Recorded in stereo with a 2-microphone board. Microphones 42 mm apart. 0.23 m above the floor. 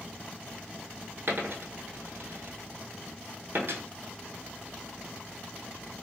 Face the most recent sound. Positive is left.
turn(degrees=-60)  # may be behind; listen again after turning